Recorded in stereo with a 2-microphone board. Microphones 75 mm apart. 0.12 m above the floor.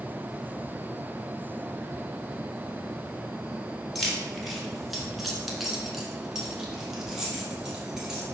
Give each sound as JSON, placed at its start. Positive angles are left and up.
{"t": 4.0, "sound": "keys jangling", "side_deg": 5, "distance_m": 1.4}